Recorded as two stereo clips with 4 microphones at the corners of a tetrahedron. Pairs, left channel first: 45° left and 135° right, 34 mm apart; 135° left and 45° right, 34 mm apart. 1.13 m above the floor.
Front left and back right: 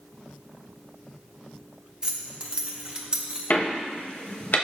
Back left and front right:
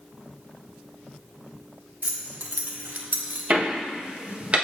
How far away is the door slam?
About 0.9 m.